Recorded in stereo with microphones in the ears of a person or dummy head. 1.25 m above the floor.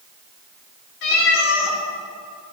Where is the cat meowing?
60° left (ahead or behind), 2.0 m.